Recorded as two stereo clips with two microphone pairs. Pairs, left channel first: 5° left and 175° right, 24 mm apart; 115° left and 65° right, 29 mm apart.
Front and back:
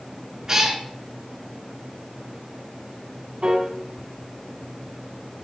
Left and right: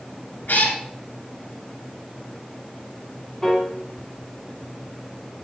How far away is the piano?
About 2 m.